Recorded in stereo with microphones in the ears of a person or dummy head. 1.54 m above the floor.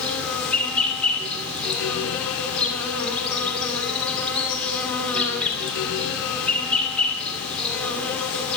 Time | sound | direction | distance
0.0 | an insect | 5° left (ahead or behind) | 2.5 m